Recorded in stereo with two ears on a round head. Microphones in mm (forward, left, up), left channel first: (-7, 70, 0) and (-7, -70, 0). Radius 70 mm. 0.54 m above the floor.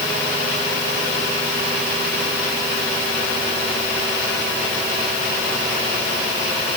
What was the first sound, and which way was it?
Only background noise.